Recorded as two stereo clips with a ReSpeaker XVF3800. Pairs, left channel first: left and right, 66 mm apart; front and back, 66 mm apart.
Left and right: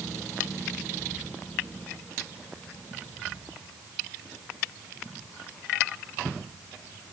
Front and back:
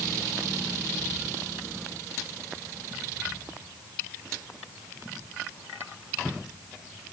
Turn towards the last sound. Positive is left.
No sound to turn to.